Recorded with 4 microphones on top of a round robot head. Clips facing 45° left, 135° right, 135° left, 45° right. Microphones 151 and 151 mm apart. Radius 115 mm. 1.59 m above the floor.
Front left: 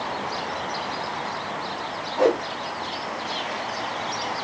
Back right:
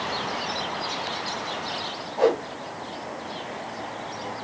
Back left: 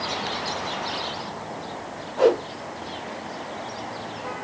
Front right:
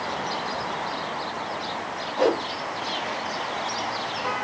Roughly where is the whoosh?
Ahead left.